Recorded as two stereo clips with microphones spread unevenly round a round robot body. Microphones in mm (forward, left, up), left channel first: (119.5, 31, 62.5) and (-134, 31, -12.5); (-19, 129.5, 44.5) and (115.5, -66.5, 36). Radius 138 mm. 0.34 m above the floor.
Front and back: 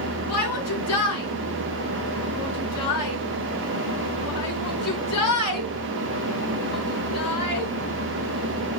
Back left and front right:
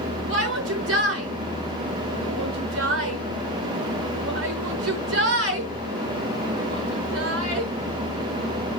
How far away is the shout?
About 5.5 m.